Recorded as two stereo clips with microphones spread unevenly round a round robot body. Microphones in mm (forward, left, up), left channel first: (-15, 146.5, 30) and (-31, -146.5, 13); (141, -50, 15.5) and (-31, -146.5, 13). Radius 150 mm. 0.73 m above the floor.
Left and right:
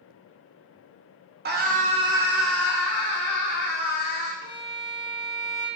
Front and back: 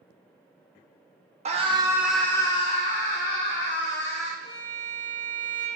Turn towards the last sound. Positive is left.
turn(degrees=115)